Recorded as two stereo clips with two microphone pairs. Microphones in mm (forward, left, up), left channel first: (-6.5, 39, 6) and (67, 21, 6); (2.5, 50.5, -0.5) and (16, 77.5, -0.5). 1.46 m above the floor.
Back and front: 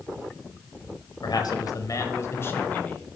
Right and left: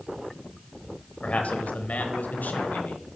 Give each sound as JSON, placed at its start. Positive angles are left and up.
{"t": 1.2, "sound": "a man speaking", "azimuth_deg": -165, "distance_m": 1.3}